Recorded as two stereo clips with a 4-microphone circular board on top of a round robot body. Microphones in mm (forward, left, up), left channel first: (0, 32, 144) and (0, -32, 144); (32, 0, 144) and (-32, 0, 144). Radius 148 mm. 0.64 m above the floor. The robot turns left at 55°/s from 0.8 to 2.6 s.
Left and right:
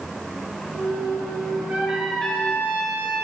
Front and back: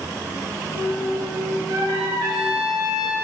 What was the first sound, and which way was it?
A trumpet, 160° right.